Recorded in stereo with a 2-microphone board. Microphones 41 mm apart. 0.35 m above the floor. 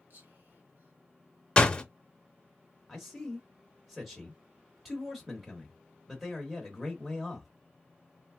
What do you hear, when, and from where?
0.1 s whispering: 60° right (ahead or behind), 2 m
1.6 s a door slam: 25° left (ahead or behind), 0.6 m
2.9 s a man speaking: 5° right (ahead or behind), 0.9 m